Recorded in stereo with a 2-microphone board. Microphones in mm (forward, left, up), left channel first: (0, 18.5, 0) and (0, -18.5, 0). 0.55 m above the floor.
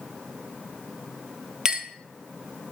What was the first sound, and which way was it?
A clink, 15° right (ahead or behind).